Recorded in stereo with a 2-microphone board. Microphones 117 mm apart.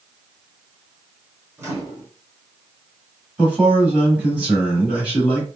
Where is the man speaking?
10° right (ahead or behind), 1.5 m.